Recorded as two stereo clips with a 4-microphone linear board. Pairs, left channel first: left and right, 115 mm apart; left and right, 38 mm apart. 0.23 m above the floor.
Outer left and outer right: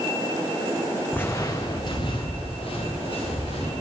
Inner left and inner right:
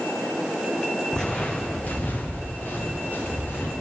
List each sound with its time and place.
1.1 s footsteps: 15° left (ahead or behind), 0.7 m; by 3.7 s 55° left (ahead or behind), 3 m